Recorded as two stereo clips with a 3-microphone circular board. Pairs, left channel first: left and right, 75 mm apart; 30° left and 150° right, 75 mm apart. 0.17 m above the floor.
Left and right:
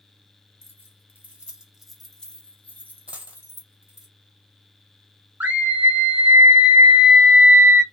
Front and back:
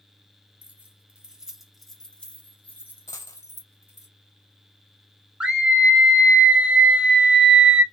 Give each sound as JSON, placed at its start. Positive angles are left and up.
{"t": 0.6, "sound": "keys jangling", "azimuth_deg": -110, "distance_m": 1.1}
{"t": 3.1, "sound": "a dropped coin", "azimuth_deg": -20, "distance_m": 0.6}
{"t": 5.4, "sound": "a scream", "azimuth_deg": -95, "distance_m": 1.0}